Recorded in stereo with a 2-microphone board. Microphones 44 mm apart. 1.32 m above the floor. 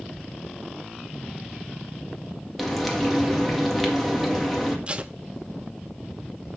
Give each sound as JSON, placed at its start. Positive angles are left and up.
{"t": 2.6, "sound": "frying", "side_deg": 0, "distance_m": 1.9}
{"t": 4.9, "sound": "tape being pulled", "side_deg": -30, "distance_m": 0.7}